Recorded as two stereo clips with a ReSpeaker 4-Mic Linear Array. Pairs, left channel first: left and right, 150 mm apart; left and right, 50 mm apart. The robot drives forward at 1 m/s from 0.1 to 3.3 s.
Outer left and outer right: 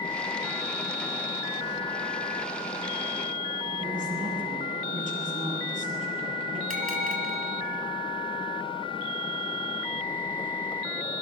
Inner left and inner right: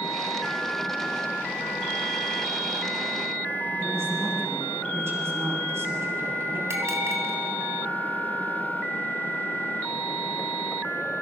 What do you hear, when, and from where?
3.8 s a man speaking: 60° right (ahead or behind), 9 m
6.7 s a bell: 65° right (ahead or behind), 3 m